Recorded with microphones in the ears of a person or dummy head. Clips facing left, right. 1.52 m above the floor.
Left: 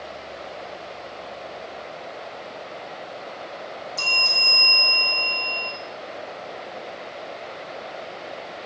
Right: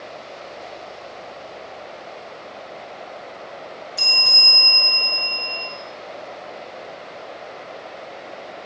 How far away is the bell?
About 0.8 m.